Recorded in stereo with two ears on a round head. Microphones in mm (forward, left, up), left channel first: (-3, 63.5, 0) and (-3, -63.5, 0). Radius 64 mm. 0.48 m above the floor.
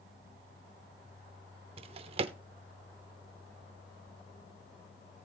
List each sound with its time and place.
1.8 s a drawer: 40° right (ahead or behind), 0.7 m